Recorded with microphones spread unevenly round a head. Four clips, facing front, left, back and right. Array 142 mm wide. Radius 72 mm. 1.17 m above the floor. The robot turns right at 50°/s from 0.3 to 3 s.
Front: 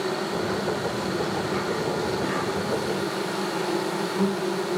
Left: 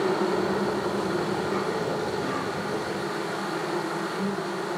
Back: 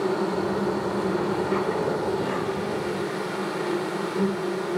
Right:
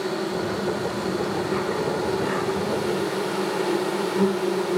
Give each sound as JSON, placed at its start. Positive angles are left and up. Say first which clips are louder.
{"t": 0.0, "sound": "an insect", "louder": "left 2 dB, back 3 dB", "azimuth_deg": 120, "distance_m": 1.4}